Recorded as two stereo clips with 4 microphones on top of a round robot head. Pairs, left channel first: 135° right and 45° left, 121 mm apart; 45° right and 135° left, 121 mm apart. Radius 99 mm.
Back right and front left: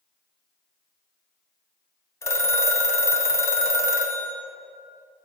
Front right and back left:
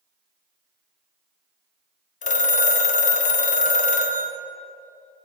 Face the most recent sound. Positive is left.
turn(degrees=-65)